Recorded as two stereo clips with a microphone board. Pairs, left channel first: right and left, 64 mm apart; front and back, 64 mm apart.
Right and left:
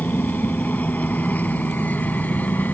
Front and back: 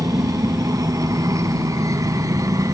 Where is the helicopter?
155° right; by 2.8 s 150° right.